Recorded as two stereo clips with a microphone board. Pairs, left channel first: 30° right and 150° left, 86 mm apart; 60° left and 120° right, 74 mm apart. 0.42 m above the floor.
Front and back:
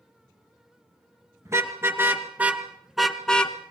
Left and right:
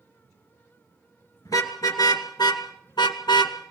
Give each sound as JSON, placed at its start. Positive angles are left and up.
{"t": 1.4, "sound": "a car horn", "azimuth_deg": 95, "distance_m": 2.5}